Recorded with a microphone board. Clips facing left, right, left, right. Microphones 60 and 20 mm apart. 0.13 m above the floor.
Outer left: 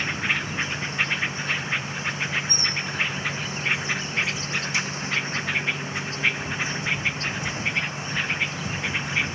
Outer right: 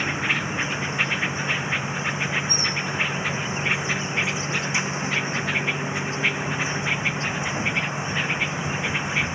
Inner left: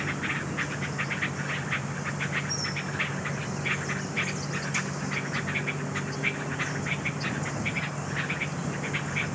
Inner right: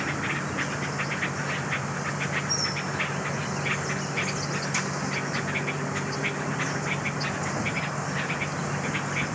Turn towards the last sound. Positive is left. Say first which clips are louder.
# outer right 2 dB, inner right 2 dB
turn(degrees=-20)  # may be behind; listen again after turning